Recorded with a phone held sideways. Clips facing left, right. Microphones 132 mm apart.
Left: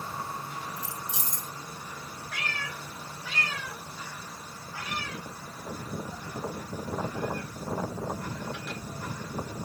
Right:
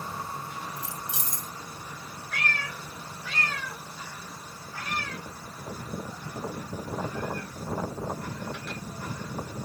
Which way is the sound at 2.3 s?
5° left (ahead or behind).